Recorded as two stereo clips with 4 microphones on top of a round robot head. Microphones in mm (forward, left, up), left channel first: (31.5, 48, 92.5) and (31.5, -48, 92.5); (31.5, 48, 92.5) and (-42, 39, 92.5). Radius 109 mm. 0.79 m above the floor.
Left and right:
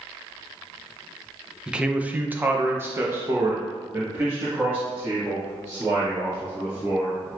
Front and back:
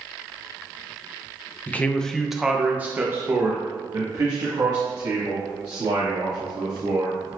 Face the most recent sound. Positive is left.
turn(degrees=-155)